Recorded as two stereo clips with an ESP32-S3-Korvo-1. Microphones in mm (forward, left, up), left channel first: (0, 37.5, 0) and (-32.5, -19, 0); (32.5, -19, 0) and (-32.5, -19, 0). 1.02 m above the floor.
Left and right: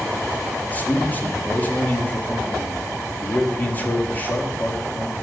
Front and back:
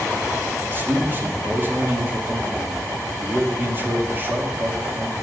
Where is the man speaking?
125° left, 1.8 m.